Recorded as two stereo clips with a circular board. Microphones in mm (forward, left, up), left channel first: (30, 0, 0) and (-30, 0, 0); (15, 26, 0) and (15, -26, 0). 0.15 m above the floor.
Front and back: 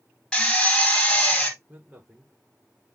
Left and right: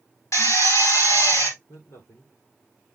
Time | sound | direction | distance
0.3 | a drill | 75° left | 4.5 m
1.7 | a man speaking | 120° left | 7 m